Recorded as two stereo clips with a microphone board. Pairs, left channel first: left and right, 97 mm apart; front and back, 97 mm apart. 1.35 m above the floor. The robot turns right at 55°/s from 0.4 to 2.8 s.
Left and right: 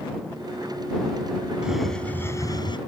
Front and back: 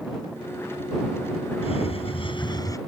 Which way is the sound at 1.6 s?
10° right.